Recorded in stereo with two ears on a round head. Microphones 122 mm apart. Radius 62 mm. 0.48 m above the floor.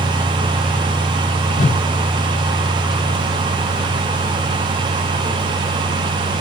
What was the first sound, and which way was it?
A whoosh, 60° left (ahead or behind).